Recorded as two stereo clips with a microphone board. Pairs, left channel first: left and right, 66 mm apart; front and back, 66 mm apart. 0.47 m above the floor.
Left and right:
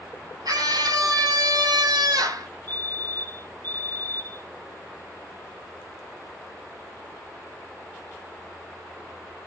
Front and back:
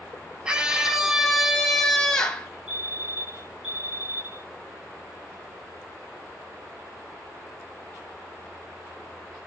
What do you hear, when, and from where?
0.5 s a scream: 105° right, 3.5 m; by 2.5 s 70° right, 3 m
2.7 s a fire alarm: 100° right, 5 m